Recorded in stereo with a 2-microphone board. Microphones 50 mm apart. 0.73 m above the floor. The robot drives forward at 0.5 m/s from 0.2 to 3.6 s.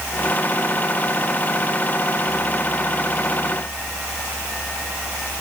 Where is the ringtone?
No ringtone in this recording.